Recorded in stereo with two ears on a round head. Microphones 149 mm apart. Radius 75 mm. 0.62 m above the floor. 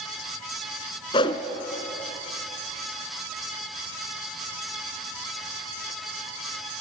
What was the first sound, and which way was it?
A whoosh, 30° left (ahead or behind).